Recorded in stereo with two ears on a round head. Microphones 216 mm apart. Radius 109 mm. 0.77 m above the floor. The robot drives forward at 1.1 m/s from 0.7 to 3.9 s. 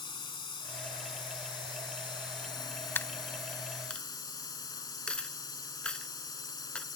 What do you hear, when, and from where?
0.0 s a drone: 20° left (ahead or behind); by 7.0 s 15° left (ahead or behind)
3.0 s a dropped coin: 10° left (ahead or behind); by 6.8 s 5° left (ahead or behind)